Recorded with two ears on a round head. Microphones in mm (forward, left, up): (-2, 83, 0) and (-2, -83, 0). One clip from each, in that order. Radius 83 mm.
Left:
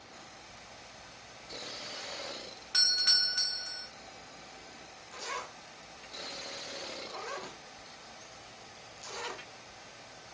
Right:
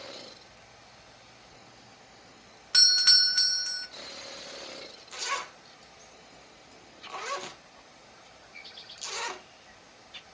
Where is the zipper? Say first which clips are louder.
Right 6 dB; 65° right (ahead or behind), 1.2 m.